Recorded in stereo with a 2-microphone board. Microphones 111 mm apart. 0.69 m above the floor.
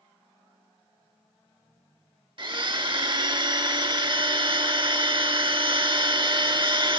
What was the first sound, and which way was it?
A blender, 50° right (ahead or behind).